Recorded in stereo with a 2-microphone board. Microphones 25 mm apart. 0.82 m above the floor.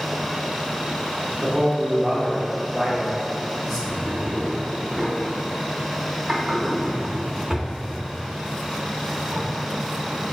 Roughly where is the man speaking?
Centre.